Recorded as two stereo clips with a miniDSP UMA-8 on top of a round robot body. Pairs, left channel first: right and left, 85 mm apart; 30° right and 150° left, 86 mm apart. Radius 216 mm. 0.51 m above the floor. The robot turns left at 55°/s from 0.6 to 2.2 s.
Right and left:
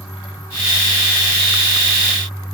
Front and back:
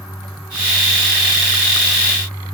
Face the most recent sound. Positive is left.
No sound to turn to.